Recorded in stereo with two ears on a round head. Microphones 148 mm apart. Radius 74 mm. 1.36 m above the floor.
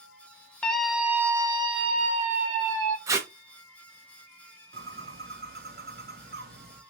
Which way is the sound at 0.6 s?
5° left (ahead or behind).